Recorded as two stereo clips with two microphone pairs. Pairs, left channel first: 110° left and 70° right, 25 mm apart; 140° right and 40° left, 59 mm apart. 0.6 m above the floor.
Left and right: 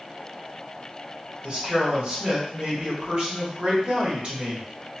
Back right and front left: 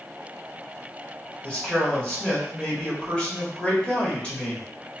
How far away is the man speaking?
About 1.2 m.